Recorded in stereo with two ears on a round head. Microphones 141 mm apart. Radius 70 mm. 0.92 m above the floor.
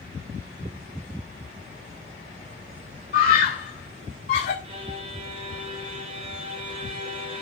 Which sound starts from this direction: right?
A violin, at 4.6 s.